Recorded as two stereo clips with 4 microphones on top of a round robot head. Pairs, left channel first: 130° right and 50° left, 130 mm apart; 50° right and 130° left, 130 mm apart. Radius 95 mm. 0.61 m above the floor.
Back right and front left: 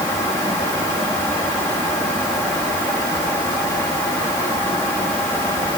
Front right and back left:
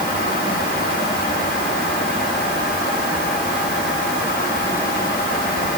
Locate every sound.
Only background noise.